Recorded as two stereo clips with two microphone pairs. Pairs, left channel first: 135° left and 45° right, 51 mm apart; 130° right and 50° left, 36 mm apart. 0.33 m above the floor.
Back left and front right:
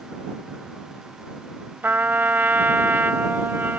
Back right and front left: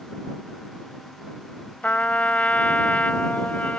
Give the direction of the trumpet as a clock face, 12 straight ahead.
3 o'clock.